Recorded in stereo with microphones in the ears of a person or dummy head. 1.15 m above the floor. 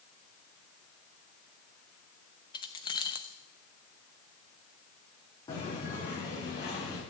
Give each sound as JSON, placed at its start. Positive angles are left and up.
{"t": 2.5, "sound": "keys jangling", "side_deg": 25, "distance_m": 0.6}
{"t": 5.5, "sound": "footsteps", "side_deg": 25, "distance_m": 4.0}